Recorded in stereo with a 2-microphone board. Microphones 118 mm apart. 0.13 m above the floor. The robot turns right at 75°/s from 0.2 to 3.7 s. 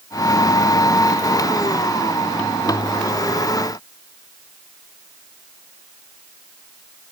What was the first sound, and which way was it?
Only background noise.